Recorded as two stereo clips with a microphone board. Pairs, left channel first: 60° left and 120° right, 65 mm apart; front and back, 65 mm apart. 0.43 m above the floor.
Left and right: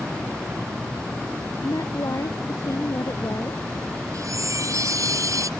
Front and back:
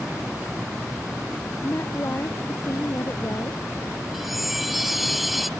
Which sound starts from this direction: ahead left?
A woman speaking, at 1.6 s.